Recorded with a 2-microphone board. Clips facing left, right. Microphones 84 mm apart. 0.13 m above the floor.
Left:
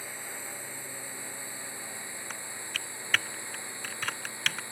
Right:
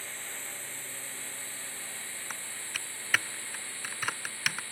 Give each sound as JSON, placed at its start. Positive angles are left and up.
{"t": 0.0, "sound": "a drone", "side_deg": 15}
{"t": 2.3, "sound": "typing on a keyboard", "side_deg": -10}